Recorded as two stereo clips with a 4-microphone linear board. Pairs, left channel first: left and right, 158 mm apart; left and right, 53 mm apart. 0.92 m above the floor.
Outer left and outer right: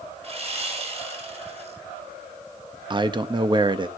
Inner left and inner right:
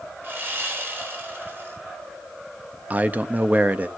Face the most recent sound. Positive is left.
turn(degrees=-30)  # may be behind; listen again after turning